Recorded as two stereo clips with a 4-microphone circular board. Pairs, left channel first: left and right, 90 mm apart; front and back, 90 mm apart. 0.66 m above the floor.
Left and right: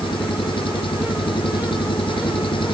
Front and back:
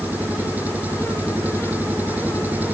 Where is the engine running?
110° left.